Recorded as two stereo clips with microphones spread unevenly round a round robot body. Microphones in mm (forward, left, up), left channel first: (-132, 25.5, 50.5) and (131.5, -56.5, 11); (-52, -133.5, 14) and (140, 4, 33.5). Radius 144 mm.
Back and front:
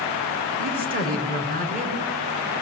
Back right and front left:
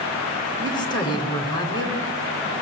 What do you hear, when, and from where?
0.6 s a woman speaking: 75° right, 6.5 m